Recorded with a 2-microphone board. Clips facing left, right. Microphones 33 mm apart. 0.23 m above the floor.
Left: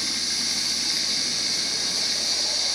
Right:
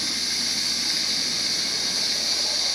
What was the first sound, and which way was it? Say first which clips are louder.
Running water: right 1 dB; 10° right (ahead or behind).